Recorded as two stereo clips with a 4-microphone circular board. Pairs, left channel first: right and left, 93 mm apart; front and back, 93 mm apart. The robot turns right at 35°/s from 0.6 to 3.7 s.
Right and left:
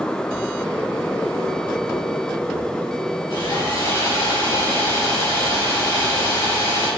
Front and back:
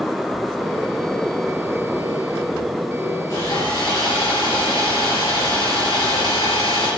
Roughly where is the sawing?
Ahead right.